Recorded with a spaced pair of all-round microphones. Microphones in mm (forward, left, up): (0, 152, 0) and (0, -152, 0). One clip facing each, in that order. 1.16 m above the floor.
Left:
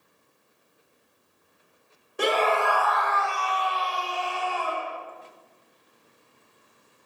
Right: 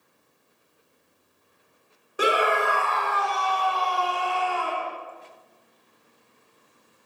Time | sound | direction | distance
2.2 | a scream | 5° right (ahead or behind) | 1.0 m